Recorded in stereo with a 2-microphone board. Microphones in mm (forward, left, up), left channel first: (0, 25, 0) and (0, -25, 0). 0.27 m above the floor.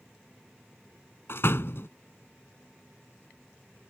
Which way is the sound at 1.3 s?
55° left (ahead or behind).